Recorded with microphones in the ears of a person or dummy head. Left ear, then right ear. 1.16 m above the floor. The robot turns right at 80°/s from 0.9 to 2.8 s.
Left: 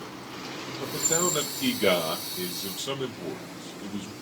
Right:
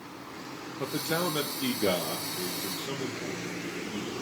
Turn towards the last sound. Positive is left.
turn(degrees=45)  # may be behind; listen again after turning